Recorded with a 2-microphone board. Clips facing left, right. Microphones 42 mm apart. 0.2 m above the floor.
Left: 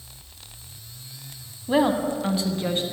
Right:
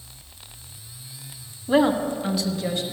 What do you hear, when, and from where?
1.7 s a woman speaking: centre (ahead or behind), 1.1 m; by 2.8 s 40° left (ahead or behind), 1.7 m